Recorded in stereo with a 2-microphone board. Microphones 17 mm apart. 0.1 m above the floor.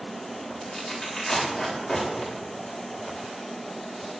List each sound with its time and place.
0.6 s tearing paper: 5° left (ahead or behind), 9 m